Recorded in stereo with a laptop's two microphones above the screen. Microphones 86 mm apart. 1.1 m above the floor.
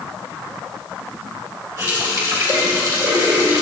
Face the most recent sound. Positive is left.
turn(degrees=-40)  # may be behind; listen again after turning